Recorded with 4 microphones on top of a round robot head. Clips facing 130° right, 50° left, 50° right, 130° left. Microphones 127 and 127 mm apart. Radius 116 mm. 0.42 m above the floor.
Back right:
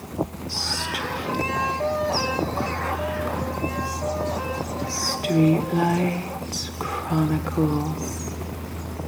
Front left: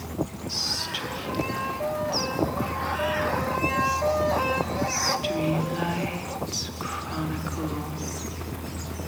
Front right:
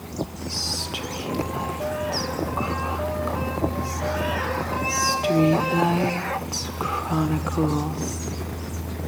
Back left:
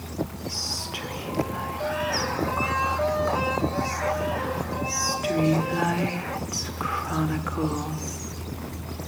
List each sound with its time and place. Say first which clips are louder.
0.5 s whispering: back right 4 dB, front right 3 dB; 110° right, 1.2 m